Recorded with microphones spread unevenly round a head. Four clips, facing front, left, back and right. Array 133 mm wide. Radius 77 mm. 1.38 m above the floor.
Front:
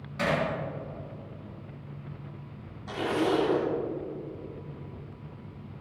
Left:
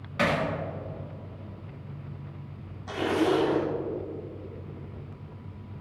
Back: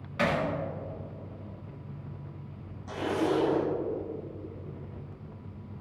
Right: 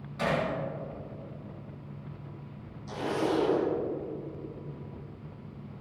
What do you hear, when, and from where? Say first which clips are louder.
0.2 s hammering: left 3 dB, even; 95° left, 3 m
2.9 s a zipper: left 5 dB, front 1 dB; 55° left, 3 m